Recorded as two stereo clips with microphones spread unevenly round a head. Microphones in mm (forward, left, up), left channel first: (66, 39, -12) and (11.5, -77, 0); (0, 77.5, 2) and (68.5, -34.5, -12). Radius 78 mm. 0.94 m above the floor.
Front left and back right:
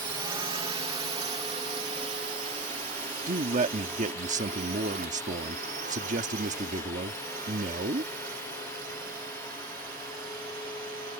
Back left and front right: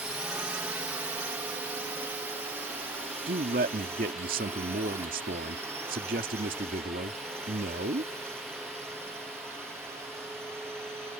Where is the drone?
125° right; by 11.2 s 135° right.